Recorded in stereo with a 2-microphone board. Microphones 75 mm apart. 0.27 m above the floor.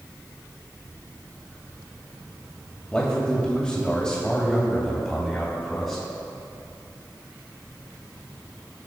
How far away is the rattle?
I don't hear a rattle.